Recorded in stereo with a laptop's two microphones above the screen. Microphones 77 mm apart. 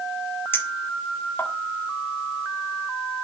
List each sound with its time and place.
0.5 s a clink: 30° left (ahead or behind), 1.7 m